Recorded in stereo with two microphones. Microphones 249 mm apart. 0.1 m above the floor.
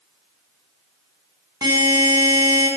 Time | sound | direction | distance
1.6 | a buzzer | 15° right (ahead or behind) | 8 m